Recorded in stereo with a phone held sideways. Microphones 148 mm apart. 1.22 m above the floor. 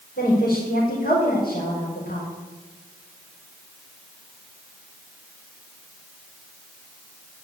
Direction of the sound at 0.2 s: 85° left.